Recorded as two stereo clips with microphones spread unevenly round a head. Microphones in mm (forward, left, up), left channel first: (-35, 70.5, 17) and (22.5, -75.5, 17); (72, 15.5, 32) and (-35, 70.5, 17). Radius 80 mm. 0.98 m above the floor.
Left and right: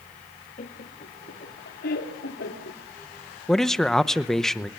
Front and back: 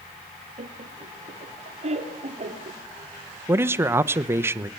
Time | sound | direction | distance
0.6 | laughter | 150° left | 2 m
3.5 | a man speaking | 160° right | 0.9 m